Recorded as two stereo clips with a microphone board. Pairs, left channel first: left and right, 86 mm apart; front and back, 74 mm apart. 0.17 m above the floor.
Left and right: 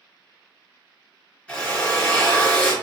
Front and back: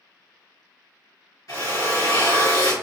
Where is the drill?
15° left, 1.8 m.